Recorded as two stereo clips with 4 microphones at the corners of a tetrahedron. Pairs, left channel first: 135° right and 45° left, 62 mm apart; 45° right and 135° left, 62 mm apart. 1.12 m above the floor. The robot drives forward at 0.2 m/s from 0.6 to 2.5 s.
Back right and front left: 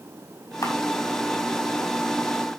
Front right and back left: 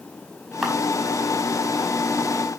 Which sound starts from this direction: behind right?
A camera shutter, at 0.6 s.